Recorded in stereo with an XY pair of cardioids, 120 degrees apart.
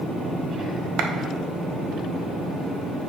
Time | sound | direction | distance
1.0 | a clap | 70° right | 0.9 m